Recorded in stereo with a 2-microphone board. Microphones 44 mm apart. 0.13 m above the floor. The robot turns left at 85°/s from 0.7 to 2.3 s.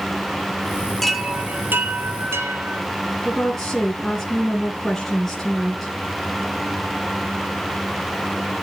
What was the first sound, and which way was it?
A chime, 10° left.